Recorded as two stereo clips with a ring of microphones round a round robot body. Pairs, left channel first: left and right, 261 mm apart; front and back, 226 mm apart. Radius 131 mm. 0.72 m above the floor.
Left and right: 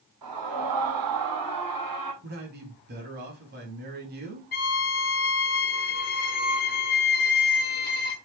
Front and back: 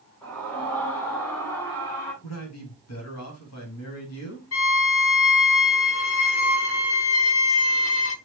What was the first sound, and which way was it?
A scream, 85° right.